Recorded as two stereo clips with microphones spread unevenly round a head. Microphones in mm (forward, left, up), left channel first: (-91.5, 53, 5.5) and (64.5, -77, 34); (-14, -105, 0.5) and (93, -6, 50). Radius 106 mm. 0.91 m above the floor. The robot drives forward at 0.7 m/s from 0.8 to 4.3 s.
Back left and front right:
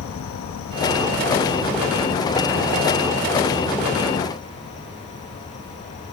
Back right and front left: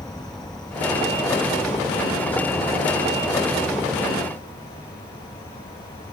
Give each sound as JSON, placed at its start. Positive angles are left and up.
{"t": 0.0, "sound": "an insect", "azimuth_deg": 140, "distance_m": 0.8}